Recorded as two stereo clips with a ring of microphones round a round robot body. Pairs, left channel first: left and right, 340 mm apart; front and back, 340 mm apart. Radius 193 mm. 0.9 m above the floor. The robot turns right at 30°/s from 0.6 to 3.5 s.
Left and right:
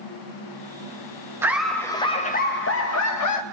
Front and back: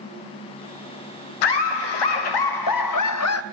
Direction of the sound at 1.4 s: 5° right.